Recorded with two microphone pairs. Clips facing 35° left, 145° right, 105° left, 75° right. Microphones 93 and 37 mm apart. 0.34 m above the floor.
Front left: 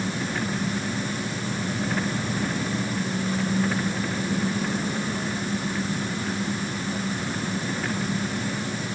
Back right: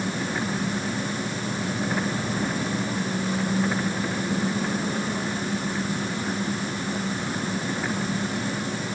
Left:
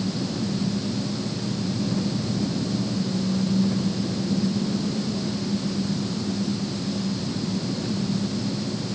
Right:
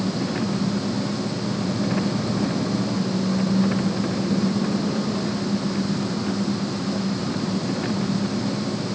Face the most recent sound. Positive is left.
turn(degrees=-65)